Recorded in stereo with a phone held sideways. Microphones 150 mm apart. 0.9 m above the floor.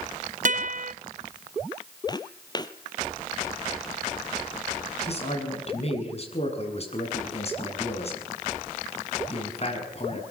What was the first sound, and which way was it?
A guitar, 60° right (ahead or behind).